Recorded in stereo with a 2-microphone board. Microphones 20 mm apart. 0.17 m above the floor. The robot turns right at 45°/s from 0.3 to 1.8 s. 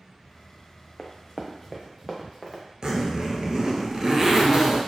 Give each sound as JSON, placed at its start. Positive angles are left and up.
{"t": 1.0, "sound": "running footsteps", "side_deg": 25, "distance_m": 0.9}
{"t": 2.8, "sound": "a zipper", "side_deg": -45, "distance_m": 1.0}